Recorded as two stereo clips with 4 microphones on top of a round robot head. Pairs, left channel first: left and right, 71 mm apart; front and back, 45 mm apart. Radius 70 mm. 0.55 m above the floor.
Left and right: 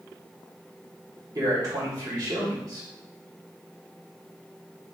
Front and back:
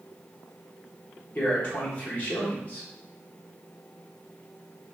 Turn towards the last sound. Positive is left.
turn(degrees=-60)